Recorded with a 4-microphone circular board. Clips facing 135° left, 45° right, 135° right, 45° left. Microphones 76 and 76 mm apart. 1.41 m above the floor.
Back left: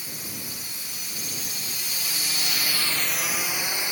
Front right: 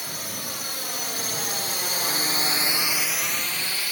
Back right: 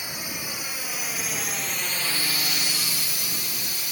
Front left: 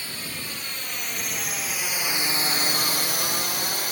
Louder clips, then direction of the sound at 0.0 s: Front right 4 dB, back right 1 dB; 60° right.